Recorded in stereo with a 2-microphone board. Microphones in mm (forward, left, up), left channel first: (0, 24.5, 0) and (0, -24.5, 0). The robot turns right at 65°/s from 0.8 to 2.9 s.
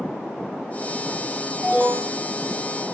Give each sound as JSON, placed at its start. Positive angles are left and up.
{"t": 1.6, "sound": "an alarm", "azimuth_deg": -145, "distance_m": 2.0}